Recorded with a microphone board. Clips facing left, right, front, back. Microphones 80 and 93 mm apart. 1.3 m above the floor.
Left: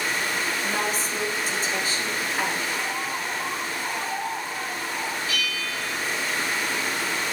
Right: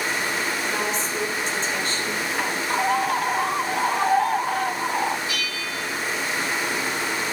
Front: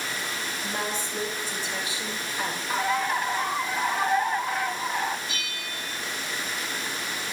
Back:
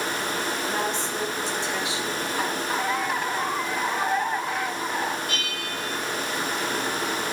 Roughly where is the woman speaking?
Behind.